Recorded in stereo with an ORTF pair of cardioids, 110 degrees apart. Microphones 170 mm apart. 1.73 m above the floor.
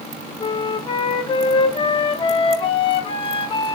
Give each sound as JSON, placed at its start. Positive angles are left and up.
{"t": 0.4, "sound": "a flute", "azimuth_deg": 35, "distance_m": 0.6}